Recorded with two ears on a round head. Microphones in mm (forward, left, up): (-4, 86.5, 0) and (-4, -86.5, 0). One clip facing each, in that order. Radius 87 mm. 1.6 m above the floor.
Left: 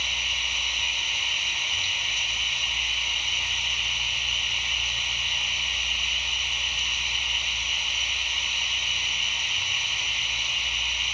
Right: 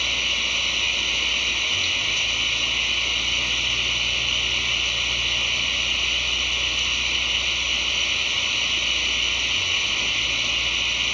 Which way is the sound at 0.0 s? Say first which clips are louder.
Right 7 dB; 60° right (ahead or behind).